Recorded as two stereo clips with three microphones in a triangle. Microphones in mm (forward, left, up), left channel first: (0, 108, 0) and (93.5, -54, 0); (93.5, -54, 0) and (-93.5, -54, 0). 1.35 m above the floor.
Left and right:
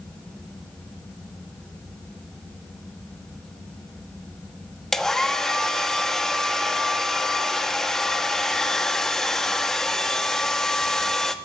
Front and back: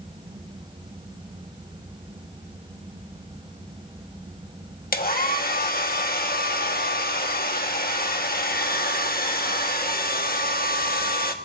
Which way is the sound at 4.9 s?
35° left.